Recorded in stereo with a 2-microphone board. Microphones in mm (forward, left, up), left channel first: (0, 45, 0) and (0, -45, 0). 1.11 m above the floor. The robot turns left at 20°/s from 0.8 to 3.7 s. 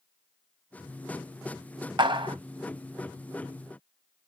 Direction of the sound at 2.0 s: 55° right (ahead or behind).